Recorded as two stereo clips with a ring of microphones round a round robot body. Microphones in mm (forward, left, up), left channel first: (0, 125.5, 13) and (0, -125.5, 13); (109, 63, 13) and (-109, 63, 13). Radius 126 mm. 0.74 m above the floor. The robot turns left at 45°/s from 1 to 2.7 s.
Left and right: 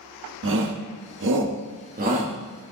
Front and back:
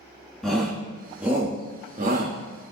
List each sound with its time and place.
0.4 s a shout: 90° right, 1.4 m; by 2.4 s 150° right, 1.4 m